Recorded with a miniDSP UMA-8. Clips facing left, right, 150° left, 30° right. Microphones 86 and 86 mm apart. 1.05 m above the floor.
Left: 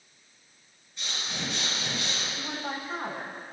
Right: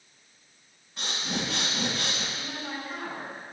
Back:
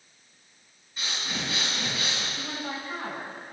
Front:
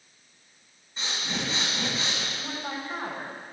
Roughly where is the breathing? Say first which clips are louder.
Right 4 dB, front 1 dB; right.